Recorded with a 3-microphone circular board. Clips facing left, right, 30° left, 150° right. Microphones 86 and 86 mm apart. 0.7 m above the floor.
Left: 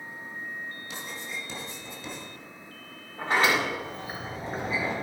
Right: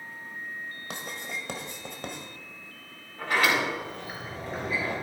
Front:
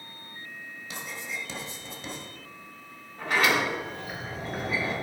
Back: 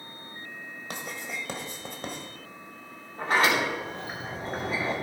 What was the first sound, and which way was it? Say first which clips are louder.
Writing: right 4 dB, back 1 dB; 115° right.